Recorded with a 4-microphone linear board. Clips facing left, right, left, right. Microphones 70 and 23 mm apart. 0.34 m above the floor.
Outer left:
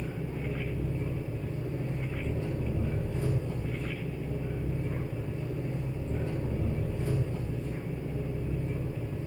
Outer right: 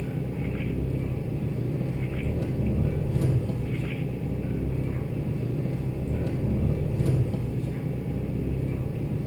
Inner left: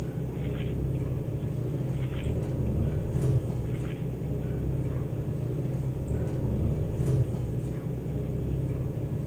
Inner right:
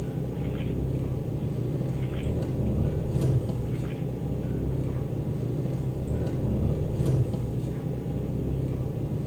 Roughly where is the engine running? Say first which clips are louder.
Outer right 4 dB, inner right 2 dB; right.